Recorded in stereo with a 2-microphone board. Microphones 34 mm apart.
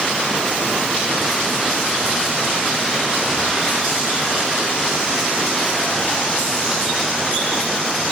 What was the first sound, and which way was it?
Only background noise.